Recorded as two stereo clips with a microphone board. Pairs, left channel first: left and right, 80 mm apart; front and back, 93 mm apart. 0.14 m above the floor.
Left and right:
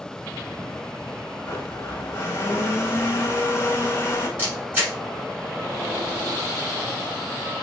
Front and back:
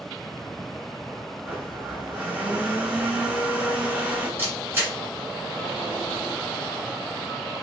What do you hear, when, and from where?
1.4 s a blender: 115° left, 0.7 m
4.4 s a camera shutter: 135° right, 1.5 m